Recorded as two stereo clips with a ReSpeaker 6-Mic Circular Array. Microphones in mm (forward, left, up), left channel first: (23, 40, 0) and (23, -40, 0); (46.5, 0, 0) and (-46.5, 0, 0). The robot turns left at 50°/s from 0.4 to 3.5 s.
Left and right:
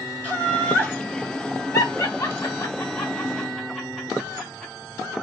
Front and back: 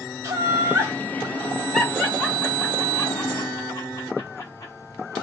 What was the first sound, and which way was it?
Laughter, 150° left.